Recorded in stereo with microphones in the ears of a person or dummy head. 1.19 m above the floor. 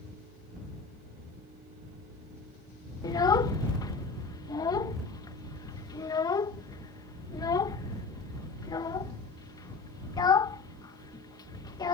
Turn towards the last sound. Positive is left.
turn(degrees=20)  # may be behind; listen again after turning